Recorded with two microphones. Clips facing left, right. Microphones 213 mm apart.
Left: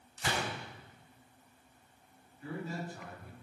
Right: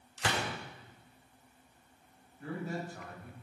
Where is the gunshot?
85° right, 4 m.